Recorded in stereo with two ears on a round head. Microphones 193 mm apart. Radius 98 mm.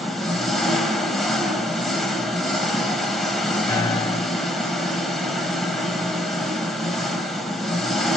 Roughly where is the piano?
Centre.